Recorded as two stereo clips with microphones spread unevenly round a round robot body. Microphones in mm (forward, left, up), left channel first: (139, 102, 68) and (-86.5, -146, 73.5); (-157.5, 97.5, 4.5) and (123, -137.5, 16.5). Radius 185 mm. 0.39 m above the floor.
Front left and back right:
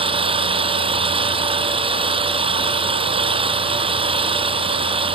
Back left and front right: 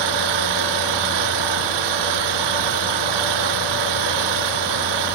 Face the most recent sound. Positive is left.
turn(degrees=-55)